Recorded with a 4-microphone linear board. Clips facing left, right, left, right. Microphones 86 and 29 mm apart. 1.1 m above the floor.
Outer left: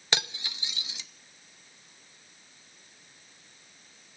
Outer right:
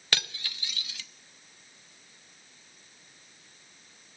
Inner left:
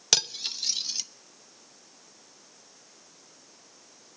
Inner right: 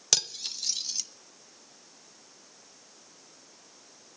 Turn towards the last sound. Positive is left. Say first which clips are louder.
# outer left 2 dB, inner left 3 dB
turn(degrees=20)  # may be behind; listen again after turning